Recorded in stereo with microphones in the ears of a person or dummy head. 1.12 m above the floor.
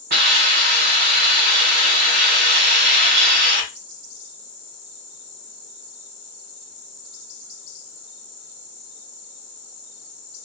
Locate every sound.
0.1 s a hiss: 55° right (ahead or behind), 1.4 m